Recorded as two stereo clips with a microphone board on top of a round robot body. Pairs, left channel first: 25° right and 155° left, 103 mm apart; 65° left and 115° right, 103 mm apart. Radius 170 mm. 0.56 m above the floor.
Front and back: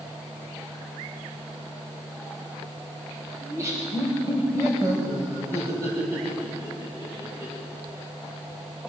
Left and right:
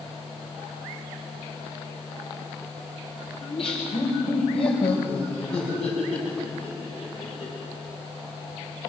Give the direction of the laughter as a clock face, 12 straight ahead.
9 o'clock.